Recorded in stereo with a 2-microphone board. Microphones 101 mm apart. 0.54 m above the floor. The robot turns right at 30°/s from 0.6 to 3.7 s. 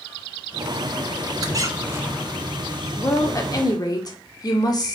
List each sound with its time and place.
1.4 s a squeak: 40° right (ahead or behind), 1.0 m; by 2.3 s 15° right (ahead or behind), 1.0 m
3.0 s a woman speaking: 30° left (ahead or behind), 1.4 m; by 5.0 s 40° left (ahead or behind), 1.4 m